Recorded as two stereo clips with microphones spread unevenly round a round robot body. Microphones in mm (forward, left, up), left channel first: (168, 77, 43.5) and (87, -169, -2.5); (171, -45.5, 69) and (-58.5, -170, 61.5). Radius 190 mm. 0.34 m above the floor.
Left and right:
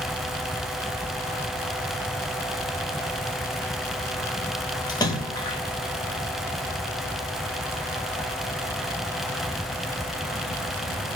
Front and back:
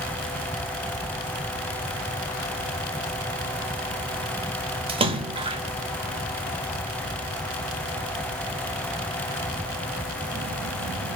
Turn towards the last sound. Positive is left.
turn(degrees=155)